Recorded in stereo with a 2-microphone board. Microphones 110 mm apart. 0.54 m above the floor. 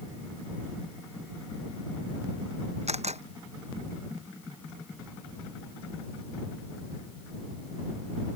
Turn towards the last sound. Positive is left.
turn(degrees=-85)